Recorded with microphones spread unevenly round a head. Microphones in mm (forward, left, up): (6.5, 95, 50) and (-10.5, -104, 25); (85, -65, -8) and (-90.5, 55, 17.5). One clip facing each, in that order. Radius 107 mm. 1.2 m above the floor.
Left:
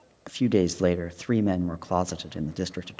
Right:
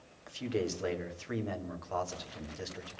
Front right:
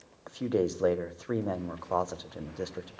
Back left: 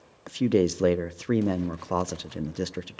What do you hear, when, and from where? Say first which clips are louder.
0.3 s a man speaking: left 11 dB, back left 6 dB; 100° left, 0.6 m